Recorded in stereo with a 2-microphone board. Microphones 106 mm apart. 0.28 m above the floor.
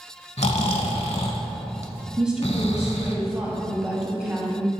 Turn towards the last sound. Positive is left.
turn(degrees=-5)  # may be behind; listen again after turning